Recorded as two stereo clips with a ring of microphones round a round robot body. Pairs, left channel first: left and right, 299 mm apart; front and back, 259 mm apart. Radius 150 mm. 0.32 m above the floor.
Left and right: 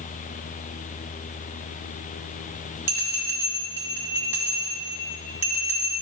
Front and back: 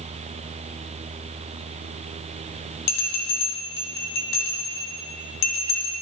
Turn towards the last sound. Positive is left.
turn(degrees=-10)